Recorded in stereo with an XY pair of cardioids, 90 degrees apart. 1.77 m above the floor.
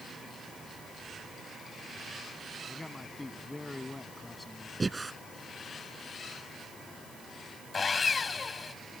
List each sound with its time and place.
2.7 s a man speaking: 15° left
4.8 s breathing: 25° right
7.7 s sawing: 40° left